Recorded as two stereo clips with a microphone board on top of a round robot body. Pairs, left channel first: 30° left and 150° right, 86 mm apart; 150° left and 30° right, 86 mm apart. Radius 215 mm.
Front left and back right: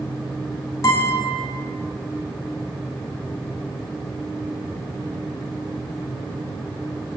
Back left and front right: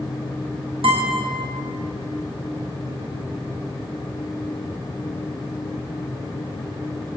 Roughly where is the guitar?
Ahead.